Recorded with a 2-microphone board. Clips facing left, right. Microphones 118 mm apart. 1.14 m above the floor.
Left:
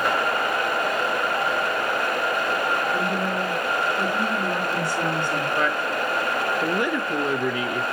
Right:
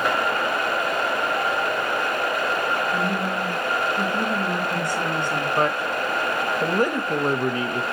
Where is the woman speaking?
20° right (ahead or behind), 3 m.